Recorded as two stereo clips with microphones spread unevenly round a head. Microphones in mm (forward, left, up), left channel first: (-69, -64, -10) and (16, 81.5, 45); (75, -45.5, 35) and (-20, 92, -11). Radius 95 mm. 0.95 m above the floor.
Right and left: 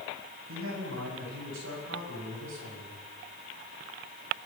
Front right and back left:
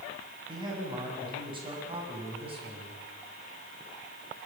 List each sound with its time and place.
0.5 s a man speaking: 60° left, 9 m; by 3.0 s 70° left, 8.5 m